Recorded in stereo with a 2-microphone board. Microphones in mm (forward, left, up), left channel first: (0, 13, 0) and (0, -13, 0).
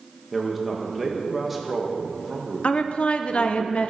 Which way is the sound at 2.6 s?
50° left (ahead or behind).